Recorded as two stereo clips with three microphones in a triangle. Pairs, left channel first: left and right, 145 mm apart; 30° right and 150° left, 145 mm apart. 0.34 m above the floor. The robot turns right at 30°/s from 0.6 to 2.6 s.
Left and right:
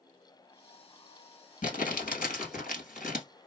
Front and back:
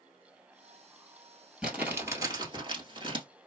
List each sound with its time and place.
1.6 s crumpling: 65° left, 1.3 m; by 3.2 s 95° left, 1.3 m